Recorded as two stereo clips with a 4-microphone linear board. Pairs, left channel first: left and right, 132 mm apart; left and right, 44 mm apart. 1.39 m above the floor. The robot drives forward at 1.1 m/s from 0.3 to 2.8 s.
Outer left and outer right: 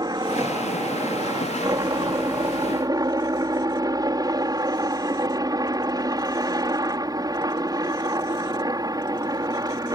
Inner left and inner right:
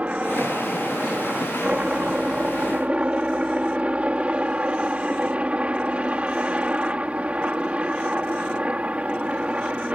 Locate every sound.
0.0 s a helicopter: 30° right (ahead or behind)